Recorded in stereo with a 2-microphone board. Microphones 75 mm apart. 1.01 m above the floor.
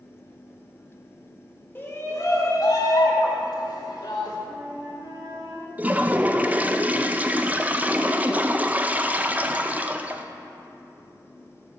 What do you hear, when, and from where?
1.8 s a shout: 25° left (ahead or behind), 1.6 m; by 4.4 s 80° left, 3.5 m
4.5 s a flute: 65° right (ahead or behind), 2.5 m
5.8 s a toilet flushing: 20° right (ahead or behind), 0.5 m